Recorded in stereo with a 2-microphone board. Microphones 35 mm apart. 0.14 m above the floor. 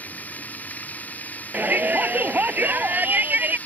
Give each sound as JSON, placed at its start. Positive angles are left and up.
{"t": 0.0, "sound": "running water", "side_deg": 50}
{"t": 1.5, "sound": "a shout", "side_deg": -60}